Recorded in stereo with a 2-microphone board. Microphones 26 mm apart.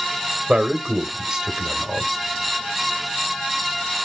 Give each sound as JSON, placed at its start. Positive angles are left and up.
{"t": 0.5, "sound": "a man speaking", "side_deg": -30, "distance_m": 1.0}